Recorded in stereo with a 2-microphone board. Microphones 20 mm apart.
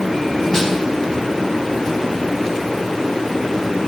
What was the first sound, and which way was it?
A snare drum, 35° left (ahead or behind).